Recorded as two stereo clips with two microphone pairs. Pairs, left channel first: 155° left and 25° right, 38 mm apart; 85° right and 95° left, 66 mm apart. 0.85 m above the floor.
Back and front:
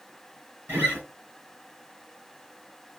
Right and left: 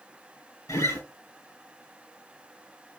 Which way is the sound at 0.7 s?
55° right.